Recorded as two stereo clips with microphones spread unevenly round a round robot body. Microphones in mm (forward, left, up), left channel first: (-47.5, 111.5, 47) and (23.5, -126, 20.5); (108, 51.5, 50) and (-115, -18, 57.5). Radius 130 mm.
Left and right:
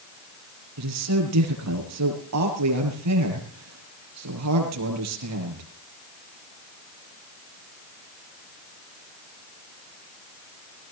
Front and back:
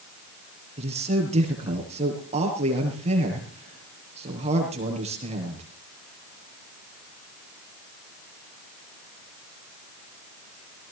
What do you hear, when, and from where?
0.8 s a man speaking: 95° right, 7 m